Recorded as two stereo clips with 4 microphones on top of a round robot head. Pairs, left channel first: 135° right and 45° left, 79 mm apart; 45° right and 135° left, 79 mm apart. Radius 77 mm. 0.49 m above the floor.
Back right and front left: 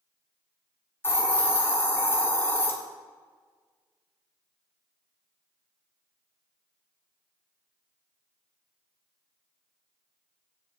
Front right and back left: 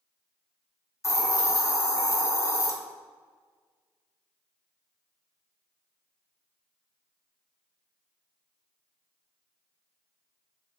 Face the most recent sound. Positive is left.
turn(degrees=-85)